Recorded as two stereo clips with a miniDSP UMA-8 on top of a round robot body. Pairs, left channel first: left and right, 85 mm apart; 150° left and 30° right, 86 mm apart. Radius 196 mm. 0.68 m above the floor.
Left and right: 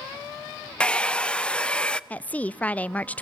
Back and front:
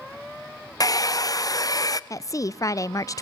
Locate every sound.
0.8 s a hair dryer: 165° left, 0.7 m
2.1 s a woman speaking: 155° left, 0.6 m